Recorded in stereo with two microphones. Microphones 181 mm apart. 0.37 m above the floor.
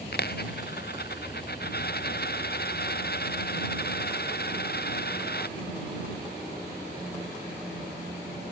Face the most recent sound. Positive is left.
turn(degrees=60)  # may be behind; listen again after turning